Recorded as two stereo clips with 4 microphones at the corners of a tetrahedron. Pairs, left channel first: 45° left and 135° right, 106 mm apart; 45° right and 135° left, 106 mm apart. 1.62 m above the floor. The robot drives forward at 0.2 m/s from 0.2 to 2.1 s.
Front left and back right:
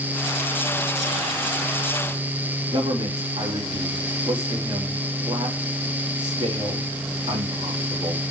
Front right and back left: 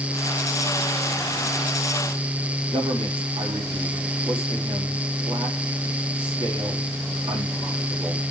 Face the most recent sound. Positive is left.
turn(degrees=180)